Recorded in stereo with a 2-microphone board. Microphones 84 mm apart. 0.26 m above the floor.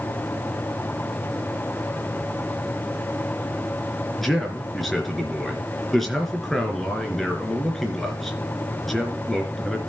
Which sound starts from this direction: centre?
A man speaking, at 4.2 s.